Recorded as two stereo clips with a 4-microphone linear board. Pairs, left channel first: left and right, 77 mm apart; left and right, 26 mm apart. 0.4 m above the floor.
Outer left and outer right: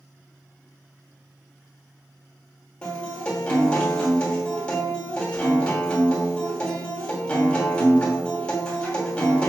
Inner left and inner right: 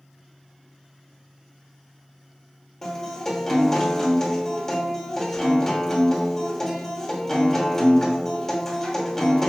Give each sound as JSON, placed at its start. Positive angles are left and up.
{"t": 2.8, "sound": "a guitar", "side_deg": 10, "distance_m": 1.2}